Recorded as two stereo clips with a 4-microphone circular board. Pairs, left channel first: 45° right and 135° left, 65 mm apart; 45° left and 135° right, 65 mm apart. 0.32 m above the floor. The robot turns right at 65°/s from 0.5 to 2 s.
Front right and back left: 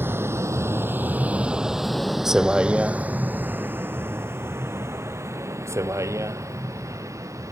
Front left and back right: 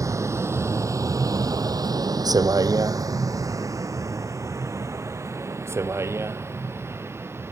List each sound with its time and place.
0.0 s a vehicle: 165° right; by 7.5 s 175° left